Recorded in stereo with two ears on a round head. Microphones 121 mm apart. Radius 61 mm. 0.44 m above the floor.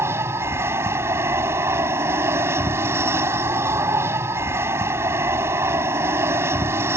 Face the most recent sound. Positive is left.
turn(degrees=-20)  # may be behind; listen again after turning